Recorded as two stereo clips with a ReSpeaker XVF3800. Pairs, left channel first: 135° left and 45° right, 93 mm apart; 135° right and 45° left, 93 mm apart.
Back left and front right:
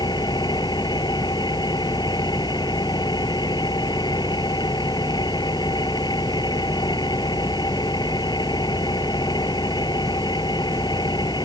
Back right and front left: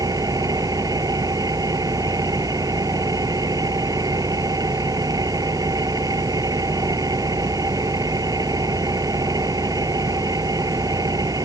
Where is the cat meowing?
I don't hear a cat meowing.